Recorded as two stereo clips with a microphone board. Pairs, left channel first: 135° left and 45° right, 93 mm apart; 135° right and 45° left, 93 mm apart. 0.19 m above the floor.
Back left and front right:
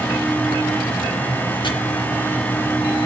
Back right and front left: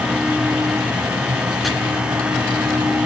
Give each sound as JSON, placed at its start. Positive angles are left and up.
{"t": 1.6, "sound": "chopping", "azimuth_deg": 135, "distance_m": 2.5}